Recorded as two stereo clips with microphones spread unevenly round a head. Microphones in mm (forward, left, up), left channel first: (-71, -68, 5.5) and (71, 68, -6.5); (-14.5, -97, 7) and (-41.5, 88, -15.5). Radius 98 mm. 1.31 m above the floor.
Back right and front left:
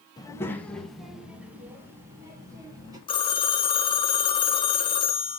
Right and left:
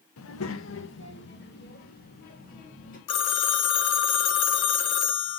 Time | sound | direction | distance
0.2 | a child speaking | 65° right | 0.9 m
3.1 | a phone ringing | 70° right | 0.7 m